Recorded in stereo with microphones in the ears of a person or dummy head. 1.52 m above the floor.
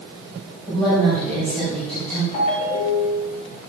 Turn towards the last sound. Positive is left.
turn(degrees=40)  # may be behind; listen again after turning